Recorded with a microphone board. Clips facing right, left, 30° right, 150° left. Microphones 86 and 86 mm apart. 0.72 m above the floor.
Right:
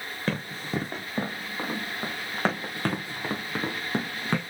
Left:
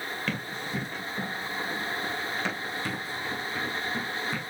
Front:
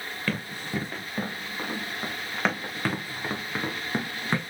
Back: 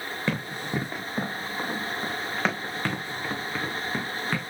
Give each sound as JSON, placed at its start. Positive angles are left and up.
{"t": 0.3, "sound": "running footsteps", "azimuth_deg": -140, "distance_m": 3.0}